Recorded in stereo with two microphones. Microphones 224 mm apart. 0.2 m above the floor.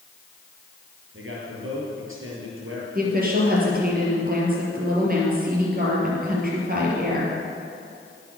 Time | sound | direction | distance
1.1 | a man speaking | 65° right (ahead or behind) | 5 m
3.0 | a woman speaking | 40° right (ahead or behind) | 4.5 m